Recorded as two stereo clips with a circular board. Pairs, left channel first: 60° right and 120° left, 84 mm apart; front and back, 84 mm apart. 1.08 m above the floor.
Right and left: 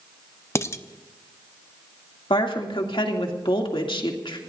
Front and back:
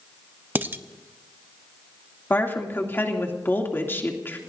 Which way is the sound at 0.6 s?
115° right.